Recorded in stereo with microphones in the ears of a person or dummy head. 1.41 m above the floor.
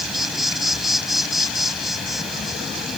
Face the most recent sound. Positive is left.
turn(degrees=0)  # may be behind; listen again after turning